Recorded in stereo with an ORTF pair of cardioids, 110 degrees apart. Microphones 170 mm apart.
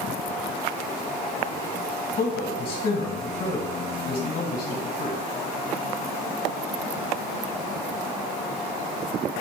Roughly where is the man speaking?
Ahead left.